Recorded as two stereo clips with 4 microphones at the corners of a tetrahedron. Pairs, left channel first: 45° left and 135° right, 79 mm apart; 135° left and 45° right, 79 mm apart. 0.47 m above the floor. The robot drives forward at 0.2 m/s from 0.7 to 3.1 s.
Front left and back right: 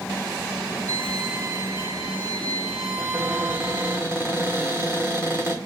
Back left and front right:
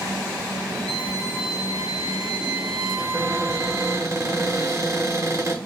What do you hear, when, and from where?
0.9 s a violin: 70° right, 2.5 m; by 4.0 s 80° right, 2.5 m
3.0 s a cupboard door: 85° right, 1.3 m